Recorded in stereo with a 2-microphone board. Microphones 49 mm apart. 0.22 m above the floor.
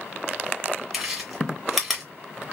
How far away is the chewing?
About 1.8 m.